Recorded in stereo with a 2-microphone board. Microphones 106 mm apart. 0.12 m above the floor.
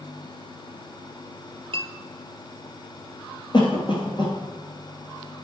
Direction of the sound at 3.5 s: 45° left (ahead or behind).